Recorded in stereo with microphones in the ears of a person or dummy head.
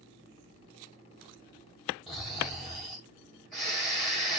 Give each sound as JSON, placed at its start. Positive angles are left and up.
{"t": 2.1, "sound": "snoring", "side_deg": 0, "distance_m": 1.4}